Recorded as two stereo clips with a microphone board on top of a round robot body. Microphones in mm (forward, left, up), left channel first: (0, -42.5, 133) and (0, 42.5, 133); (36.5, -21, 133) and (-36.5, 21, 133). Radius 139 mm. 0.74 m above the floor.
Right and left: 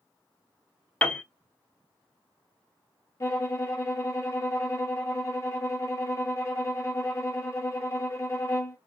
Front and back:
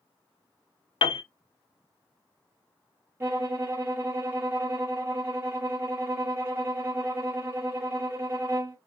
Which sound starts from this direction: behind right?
A violin, at 3.2 s.